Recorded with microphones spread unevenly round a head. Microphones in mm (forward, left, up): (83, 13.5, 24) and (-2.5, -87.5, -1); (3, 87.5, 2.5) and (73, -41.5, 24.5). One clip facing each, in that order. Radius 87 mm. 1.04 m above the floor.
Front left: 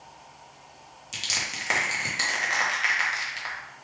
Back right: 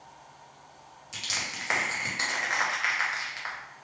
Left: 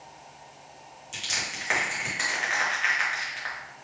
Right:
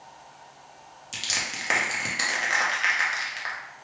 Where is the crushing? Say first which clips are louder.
Front left 2 dB, right 1 dB; 20° right, 1.0 m.